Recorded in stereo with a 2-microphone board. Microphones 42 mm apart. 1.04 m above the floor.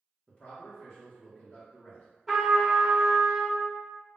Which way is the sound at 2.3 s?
Centre (ahead or behind).